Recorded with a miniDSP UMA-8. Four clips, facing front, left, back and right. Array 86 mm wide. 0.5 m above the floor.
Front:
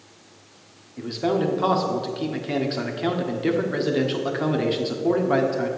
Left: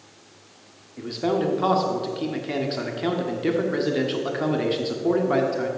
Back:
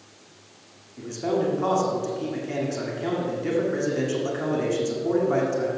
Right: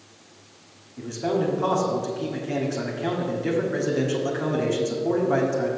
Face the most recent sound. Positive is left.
turn(degrees=40)